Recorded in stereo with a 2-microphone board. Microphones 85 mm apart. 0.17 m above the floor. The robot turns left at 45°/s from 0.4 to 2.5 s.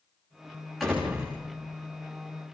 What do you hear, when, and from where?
0.8 s a door slam: 5° left (ahead or behind), 10 m; by 1.4 s 20° right (ahead or behind), 10 m